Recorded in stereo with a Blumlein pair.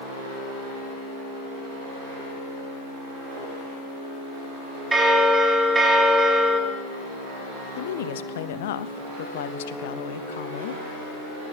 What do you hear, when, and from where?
4.9 s a bell: 15° right, 1.6 m
7.8 s a woman speaking: 55° left, 0.5 m